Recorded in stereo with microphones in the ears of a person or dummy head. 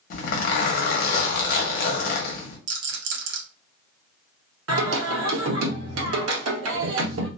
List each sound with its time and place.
0.1 s a zipper: 55° left (ahead or behind), 0.8 m
2.7 s a rattle: 65° right (ahead or behind), 1.0 m
4.7 s singing: 85° right, 0.9 m